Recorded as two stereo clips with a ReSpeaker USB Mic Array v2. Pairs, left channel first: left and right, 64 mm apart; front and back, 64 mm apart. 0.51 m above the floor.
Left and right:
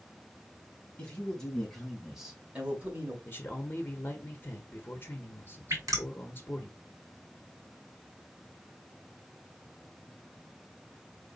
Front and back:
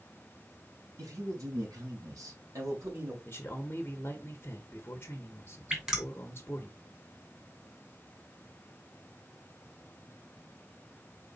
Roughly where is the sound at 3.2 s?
Ahead left.